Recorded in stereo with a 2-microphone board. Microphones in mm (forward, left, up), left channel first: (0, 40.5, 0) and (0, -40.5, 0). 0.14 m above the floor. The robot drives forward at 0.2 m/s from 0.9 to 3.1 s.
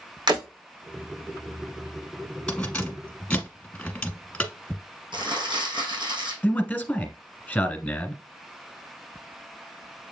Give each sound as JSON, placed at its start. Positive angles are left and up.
{"t": 0.3, "sound": "breaking glass", "side_deg": -65, "distance_m": 3.0}
{"t": 2.5, "sound": "keys jangling", "side_deg": 20, "distance_m": 1.1}
{"t": 5.1, "sound": "crumpling", "side_deg": -70, "distance_m": 4.0}
{"t": 6.4, "sound": "a man speaking", "side_deg": 25, "distance_m": 1.1}